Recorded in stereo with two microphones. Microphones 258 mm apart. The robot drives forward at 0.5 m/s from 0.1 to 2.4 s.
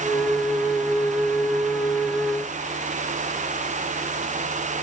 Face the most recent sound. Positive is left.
No sound to turn to.